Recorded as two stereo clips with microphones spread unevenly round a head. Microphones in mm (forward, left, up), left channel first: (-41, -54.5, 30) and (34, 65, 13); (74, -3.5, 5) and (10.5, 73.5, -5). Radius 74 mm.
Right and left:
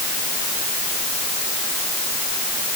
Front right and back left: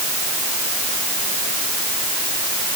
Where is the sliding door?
No sliding door in this recording.